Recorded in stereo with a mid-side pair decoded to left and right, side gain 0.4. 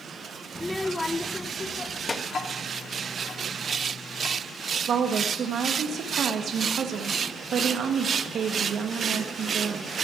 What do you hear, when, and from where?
0.6 s a child speaking: 5° left, 0.6 m; by 2.2 s 30° left, 1.6 m
2.3 s ticking: 50° left, 1.9 m
4.9 s a woman speaking: 65° right, 1.7 m